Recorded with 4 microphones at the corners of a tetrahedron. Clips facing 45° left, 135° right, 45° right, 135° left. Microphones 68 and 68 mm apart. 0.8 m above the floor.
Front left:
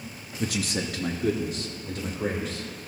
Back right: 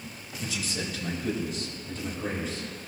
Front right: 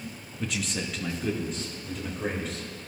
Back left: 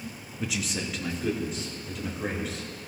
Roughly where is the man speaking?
Ahead left.